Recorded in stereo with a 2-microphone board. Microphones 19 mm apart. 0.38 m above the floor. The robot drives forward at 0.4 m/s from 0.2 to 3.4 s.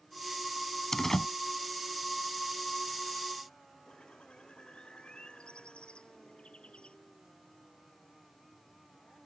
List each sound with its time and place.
0.9 s a door slam: 25° left (ahead or behind)
3.9 s a bird: 70° left (ahead or behind)